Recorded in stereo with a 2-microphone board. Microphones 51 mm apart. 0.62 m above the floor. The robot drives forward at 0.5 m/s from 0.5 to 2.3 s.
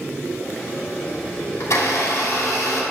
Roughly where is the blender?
Left.